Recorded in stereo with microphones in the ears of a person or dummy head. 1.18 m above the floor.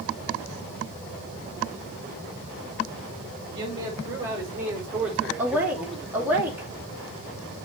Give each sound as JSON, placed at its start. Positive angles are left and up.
{"t": 3.5, "sound": "a man speaking", "side_deg": -25, "distance_m": 5.0}
{"t": 5.4, "sound": "a woman speaking", "side_deg": -10, "distance_m": 3.0}